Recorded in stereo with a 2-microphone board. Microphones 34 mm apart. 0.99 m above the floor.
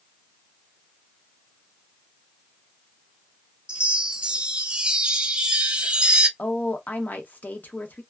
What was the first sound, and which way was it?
A chime, 30° right (ahead or behind).